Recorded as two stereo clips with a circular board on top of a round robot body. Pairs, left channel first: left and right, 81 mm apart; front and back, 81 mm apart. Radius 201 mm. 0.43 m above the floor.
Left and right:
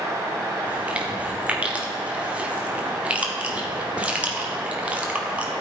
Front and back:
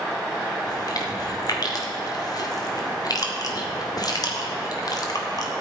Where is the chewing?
20° right, 2.0 m.